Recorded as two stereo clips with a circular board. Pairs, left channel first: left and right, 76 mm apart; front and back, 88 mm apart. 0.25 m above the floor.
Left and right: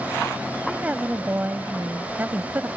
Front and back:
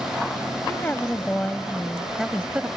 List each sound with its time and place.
0.7 s a woman speaking: 35° right; by 2.7 s 120° right